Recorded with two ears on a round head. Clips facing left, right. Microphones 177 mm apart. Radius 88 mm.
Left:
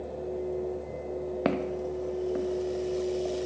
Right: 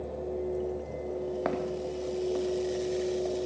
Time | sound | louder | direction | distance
1.4 | footsteps | left 2 dB | 40° left (ahead or behind) | 3.5 m